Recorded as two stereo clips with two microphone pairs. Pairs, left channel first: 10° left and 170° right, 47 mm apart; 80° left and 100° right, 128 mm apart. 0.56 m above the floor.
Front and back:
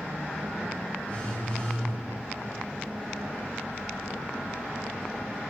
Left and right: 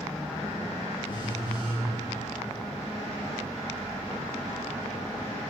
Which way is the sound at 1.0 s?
50° left.